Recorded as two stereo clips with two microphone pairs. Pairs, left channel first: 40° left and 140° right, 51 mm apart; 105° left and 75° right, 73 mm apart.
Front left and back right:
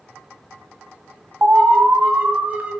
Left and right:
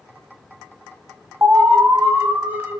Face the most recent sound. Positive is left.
turn(degrees=-120)